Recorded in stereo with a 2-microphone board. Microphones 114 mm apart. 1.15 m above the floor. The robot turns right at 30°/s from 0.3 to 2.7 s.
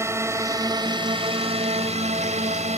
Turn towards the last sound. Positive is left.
turn(degrees=-80)